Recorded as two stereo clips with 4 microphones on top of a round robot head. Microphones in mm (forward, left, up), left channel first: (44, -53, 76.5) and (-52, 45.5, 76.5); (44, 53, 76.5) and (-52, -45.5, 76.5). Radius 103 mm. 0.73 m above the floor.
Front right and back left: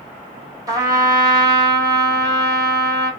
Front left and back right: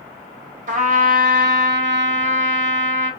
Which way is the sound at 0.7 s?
160° right.